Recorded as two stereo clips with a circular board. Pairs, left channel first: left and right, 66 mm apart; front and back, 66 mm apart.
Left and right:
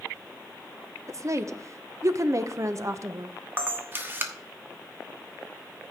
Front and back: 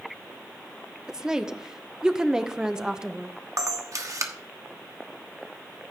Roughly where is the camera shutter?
Behind right.